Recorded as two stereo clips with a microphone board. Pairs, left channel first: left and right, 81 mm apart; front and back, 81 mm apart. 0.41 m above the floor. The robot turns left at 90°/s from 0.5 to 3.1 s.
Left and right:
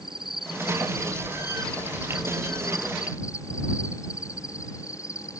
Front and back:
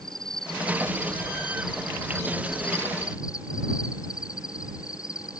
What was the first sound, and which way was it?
An insect, 85° right.